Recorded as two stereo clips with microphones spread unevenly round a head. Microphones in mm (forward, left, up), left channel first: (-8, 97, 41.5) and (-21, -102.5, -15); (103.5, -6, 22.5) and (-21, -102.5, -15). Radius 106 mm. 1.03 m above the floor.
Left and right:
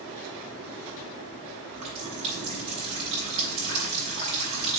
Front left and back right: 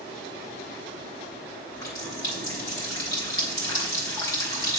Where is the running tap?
30° right, 3 m.